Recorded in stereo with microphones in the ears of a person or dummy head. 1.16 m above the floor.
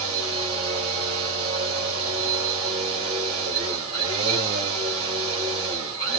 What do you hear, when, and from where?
0.0 s a machine running: 35° right (ahead or behind), 3 m